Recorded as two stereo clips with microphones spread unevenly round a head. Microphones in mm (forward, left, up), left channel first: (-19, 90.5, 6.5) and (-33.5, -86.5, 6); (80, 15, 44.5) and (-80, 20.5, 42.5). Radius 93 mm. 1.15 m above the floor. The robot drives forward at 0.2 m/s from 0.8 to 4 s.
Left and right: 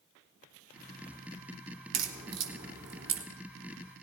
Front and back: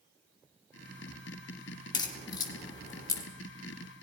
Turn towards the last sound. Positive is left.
turn(degrees=-75)